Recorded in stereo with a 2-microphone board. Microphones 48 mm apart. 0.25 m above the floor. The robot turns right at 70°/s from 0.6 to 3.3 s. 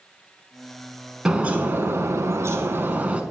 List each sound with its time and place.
1.2 s a bird: 165° right, 0.8 m; by 3.2 s 30° right, 0.8 m